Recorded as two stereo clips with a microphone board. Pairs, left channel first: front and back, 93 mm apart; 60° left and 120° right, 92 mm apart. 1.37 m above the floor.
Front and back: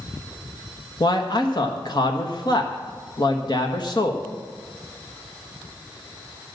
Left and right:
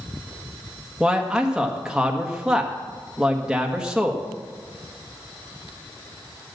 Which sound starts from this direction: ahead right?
A man speaking, at 1.0 s.